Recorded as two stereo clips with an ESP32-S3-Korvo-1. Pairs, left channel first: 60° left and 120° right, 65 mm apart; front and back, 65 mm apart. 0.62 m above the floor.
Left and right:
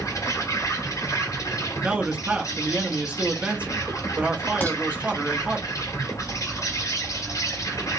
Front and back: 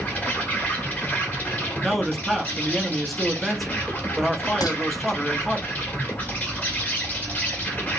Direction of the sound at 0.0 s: 60° left.